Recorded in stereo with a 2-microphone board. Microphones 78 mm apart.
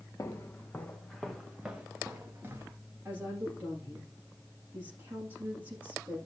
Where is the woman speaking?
25° right (ahead or behind), 9 m.